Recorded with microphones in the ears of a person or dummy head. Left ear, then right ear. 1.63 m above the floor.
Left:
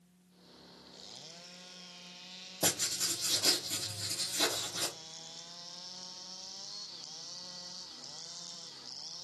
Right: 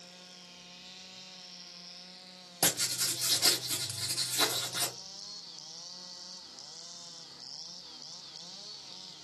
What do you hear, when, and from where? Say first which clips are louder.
2.6 s writing: right 2 dB; 30° right (ahead or behind), 1.1 m